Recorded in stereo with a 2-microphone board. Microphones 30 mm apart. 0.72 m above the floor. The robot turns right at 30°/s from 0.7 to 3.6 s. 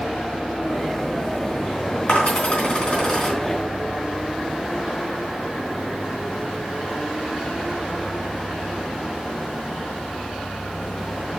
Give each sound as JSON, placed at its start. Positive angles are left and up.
{"t": 2.1, "sound": "a dropped coin", "side_deg": 50, "distance_m": 3.5}